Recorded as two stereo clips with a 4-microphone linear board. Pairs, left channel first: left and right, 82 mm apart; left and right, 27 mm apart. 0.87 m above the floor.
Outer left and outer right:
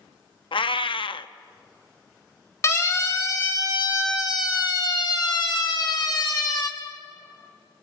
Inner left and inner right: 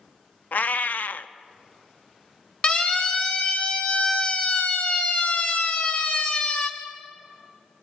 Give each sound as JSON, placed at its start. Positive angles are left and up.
{"t": 0.5, "sound": "a cat meowing", "side_deg": 80, "distance_m": 0.6}
{"t": 2.6, "sound": "a siren", "side_deg": 35, "distance_m": 2.5}